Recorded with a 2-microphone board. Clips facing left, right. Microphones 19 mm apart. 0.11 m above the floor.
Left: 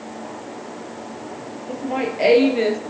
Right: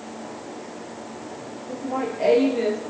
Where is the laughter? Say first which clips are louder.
Left 3 dB; 60° left (ahead or behind), 2.5 m; by 2.8 s 30° left (ahead or behind), 1.9 m.